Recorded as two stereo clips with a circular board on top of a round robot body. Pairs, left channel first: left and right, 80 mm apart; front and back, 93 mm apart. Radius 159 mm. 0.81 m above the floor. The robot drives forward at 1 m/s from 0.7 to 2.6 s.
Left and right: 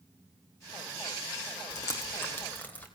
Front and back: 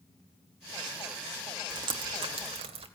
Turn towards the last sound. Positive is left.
turn(degrees=160)